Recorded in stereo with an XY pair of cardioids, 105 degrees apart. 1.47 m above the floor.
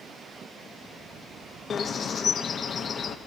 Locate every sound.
1.7 s a bird: 50° left, 0.6 m